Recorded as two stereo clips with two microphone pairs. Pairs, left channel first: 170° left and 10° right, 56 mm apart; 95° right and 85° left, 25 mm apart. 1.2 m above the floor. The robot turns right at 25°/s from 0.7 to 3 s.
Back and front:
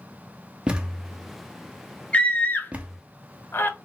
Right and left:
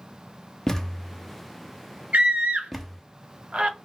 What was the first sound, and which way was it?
A thud, 45° right.